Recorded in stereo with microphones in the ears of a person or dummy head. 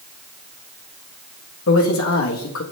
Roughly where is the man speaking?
Left.